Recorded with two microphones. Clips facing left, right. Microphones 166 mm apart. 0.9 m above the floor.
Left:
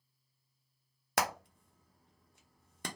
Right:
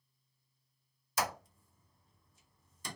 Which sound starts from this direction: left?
Hammering, at 1.2 s.